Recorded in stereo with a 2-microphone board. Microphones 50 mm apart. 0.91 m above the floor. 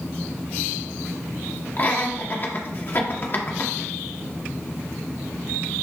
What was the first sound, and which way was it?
Laughter, 40° left (ahead or behind).